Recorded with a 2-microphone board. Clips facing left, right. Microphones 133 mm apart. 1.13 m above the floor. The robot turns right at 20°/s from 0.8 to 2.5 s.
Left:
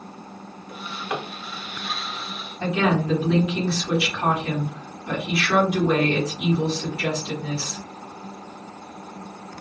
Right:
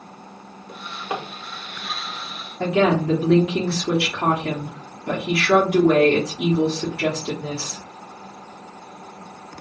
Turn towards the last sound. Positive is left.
turn(degrees=-70)  # may be behind; listen again after turning